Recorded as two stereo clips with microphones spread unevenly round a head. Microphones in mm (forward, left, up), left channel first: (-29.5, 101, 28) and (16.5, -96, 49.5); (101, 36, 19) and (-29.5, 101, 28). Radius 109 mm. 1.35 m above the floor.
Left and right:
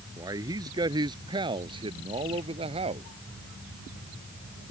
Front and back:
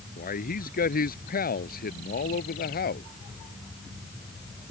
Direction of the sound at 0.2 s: 5° right.